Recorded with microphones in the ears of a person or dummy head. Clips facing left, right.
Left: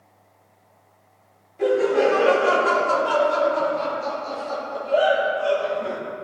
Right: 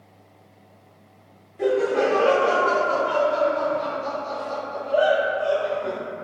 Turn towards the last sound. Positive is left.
turn(degrees=55)  # may be behind; listen again after turning